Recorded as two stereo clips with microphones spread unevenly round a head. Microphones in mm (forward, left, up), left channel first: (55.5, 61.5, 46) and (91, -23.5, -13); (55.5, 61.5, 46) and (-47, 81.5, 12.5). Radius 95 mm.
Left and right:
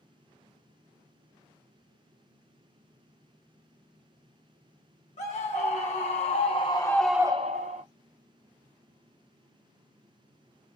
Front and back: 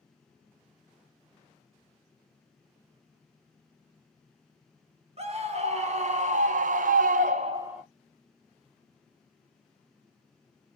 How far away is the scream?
About 2 m.